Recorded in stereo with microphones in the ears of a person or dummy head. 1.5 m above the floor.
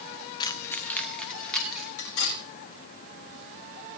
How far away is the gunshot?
No gunshot in this recording.